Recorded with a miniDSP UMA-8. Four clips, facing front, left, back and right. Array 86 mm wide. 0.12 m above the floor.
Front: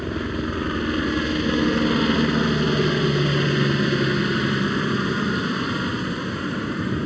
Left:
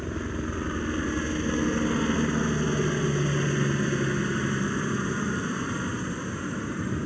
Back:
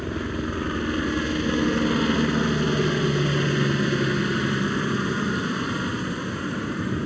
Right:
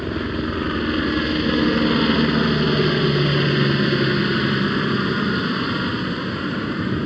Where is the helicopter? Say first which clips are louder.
Right 8 dB, front 2 dB; 75° right.